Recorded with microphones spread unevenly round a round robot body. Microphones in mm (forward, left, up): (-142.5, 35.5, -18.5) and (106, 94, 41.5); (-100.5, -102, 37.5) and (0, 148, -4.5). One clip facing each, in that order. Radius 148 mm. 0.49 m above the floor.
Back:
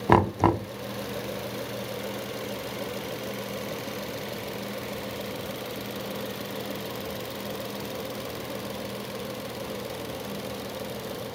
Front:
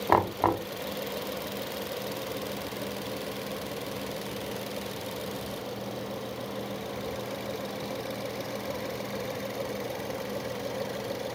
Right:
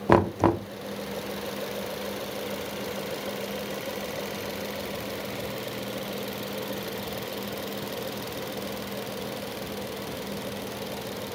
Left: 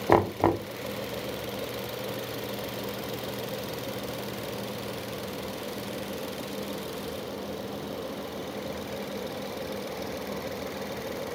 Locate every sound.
0.1 s knocking: 175° left, 0.7 m